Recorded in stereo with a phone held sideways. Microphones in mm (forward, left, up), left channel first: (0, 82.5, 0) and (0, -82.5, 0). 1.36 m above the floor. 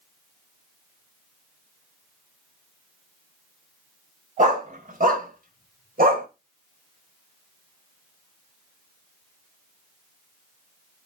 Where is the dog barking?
55° right (ahead or behind), 3 m; by 6.3 s 70° right (ahead or behind), 2.5 m.